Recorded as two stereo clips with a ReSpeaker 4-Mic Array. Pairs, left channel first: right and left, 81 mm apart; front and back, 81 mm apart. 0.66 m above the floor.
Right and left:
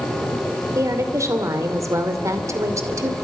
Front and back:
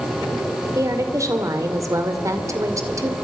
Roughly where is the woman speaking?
Behind left.